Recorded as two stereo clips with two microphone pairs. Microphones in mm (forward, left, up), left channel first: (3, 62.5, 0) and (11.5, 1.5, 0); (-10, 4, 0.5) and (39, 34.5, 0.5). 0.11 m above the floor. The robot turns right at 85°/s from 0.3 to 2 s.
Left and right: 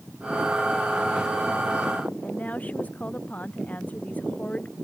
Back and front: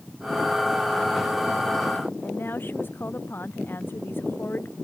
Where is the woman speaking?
160° left.